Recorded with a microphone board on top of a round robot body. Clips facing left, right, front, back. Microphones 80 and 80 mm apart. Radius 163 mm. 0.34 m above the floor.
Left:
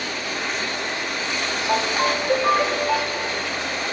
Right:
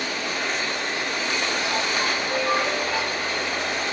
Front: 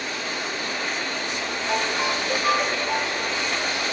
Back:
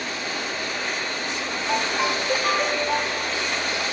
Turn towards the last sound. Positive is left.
turn(degrees=90)